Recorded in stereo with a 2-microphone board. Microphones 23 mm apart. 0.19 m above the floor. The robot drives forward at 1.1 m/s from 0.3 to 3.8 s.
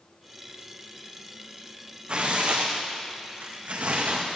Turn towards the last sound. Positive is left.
turn(degrees=-70)  # may be behind; listen again after turning